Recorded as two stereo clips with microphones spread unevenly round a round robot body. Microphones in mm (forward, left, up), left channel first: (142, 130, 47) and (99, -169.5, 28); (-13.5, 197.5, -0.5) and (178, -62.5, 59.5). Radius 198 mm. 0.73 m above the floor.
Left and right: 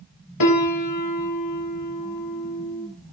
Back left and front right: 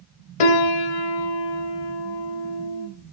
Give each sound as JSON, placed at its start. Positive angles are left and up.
{"t": 0.4, "sound": "a piano", "azimuth_deg": 130, "distance_m": 2.5}